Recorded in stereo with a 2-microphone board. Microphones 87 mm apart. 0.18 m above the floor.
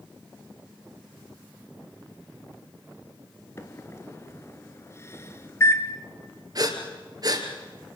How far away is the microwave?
About 1.9 m.